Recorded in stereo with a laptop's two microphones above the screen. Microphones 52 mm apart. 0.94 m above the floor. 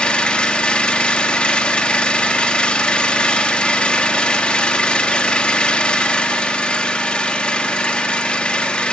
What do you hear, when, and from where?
0.0 s an engine running: 20° left (ahead or behind), 1.3 m